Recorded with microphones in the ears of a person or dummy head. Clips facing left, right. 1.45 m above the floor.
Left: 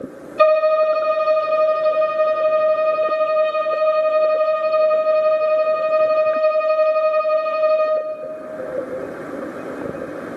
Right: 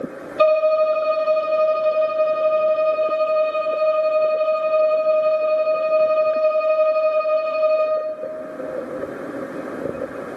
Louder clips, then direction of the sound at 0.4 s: Left 1 dB; 15° left (ahead or behind).